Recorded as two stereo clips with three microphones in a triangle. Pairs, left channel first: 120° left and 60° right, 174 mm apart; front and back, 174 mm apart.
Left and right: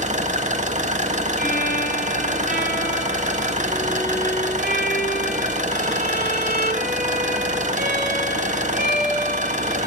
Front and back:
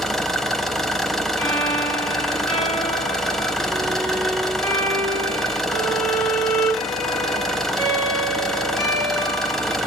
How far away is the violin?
About 3.5 m.